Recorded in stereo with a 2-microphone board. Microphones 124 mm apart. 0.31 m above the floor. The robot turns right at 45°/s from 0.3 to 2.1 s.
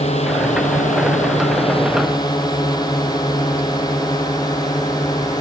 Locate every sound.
0.0 s a drone: 60° left (ahead or behind); by 5.4 s 30° left (ahead or behind)